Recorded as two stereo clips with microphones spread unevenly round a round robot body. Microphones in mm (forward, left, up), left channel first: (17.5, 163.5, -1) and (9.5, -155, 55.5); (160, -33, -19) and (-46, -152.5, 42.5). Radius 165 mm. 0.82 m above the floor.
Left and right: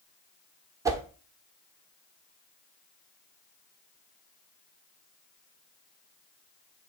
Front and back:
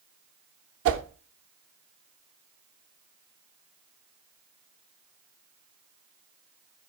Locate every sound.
0.8 s a whoosh: 165° right, 0.6 m